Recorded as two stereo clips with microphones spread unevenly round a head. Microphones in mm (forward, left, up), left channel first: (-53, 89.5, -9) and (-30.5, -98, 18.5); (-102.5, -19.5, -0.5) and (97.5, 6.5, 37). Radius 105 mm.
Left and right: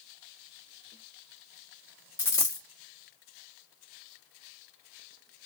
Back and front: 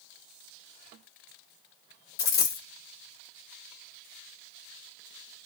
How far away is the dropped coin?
About 1.0 m.